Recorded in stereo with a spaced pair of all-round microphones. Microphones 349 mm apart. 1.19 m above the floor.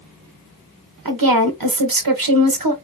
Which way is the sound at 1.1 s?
75° right (ahead or behind).